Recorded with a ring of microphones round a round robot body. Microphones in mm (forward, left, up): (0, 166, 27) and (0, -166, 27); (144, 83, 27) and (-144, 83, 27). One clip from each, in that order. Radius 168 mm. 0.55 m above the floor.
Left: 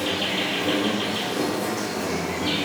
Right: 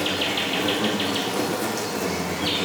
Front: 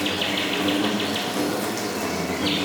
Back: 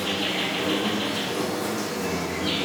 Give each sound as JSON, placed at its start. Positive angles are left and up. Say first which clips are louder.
{"t": 0.0, "sound": "an insect", "louder": "right 1 dB, front 2 dB", "azimuth_deg": -30, "distance_m": 1.0}